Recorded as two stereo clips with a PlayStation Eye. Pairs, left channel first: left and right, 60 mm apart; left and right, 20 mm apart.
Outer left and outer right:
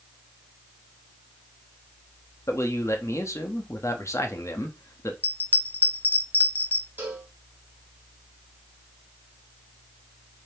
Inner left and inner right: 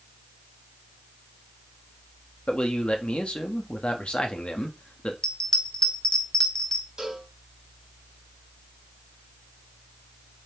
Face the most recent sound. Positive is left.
turn(degrees=-35)  # may be behind; listen again after turning